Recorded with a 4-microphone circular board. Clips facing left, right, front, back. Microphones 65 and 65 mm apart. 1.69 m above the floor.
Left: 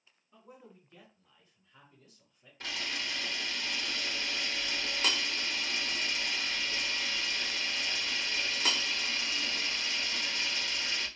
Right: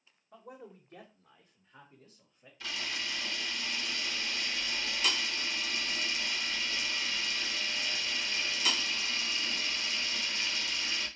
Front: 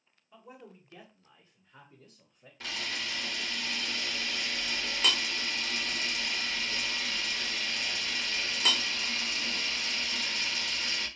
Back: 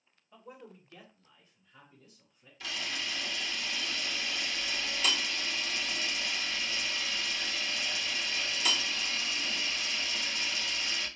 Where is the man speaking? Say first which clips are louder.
Right 5 dB, even; 95° right, 1.0 m; by 2.5 s 20° right, 1.2 m.